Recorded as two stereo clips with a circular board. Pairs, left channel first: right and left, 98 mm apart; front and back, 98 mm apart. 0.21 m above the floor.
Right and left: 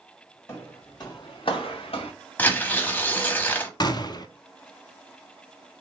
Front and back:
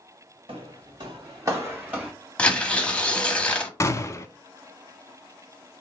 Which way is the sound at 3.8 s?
55° right.